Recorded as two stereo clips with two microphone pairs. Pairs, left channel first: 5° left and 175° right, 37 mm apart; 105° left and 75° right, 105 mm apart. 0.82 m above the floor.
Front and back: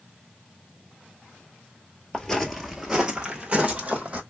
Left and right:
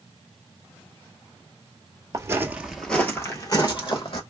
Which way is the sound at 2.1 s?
60° right.